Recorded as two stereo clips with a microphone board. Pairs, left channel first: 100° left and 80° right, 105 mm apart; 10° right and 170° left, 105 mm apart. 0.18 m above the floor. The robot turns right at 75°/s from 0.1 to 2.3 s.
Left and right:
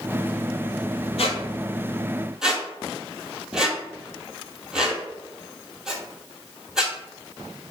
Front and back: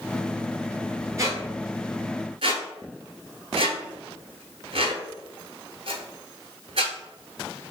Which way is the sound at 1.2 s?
110° left.